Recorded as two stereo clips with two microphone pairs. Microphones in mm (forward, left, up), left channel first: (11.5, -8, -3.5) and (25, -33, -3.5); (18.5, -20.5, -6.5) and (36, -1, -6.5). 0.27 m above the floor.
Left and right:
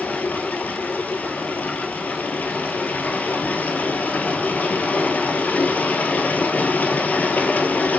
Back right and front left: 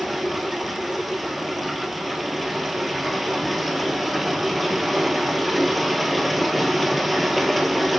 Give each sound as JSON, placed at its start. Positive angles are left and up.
{"t": 0.0, "sound": "running water", "azimuth_deg": 140, "distance_m": 1.7}